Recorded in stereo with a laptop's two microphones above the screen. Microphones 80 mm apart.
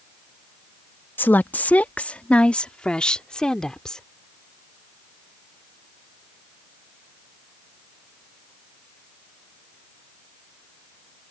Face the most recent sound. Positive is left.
turn(degrees=10)  # may be behind; listen again after turning